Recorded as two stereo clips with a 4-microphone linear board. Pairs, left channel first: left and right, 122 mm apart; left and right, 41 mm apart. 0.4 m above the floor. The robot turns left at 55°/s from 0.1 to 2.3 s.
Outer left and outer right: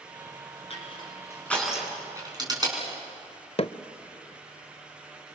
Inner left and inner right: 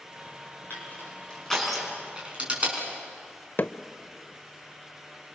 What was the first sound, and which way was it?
Crushing, 50° left (ahead or behind).